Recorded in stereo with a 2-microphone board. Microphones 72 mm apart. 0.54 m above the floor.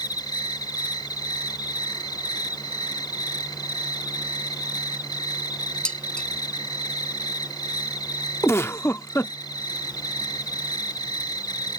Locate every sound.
0.0 s an insect: 70° left (ahead or behind)
5.8 s dishes clattering: 15° left (ahead or behind)
8.4 s a giggle: 35° left (ahead or behind)